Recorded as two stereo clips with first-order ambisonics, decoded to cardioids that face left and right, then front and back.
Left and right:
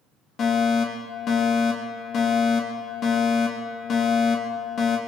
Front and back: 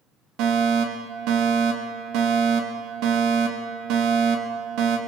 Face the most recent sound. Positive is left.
turn(degrees=150)